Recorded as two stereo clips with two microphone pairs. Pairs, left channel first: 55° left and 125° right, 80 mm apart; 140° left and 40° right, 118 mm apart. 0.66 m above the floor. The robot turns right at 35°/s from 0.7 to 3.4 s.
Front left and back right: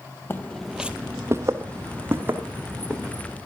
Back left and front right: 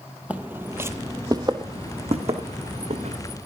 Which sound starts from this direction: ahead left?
Footsteps, at 0.3 s.